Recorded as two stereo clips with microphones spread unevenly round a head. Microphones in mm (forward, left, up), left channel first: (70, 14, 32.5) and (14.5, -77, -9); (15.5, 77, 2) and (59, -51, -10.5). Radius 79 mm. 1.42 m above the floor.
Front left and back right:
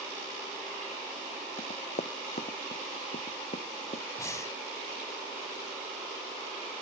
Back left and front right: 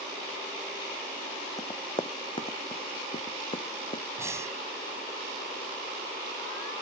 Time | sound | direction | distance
1.6 | running footsteps | 45° left | ?
4.2 | breathing | straight ahead | ?